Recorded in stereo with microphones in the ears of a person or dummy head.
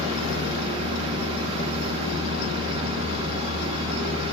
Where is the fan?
35° right (ahead or behind), 1.5 m.